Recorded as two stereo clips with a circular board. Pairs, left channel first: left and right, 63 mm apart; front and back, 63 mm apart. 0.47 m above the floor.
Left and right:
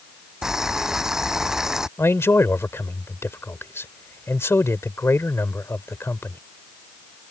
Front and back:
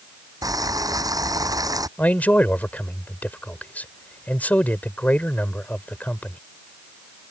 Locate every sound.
0.4 s boiling: 175° right
2.0 s a man speaking: 55° left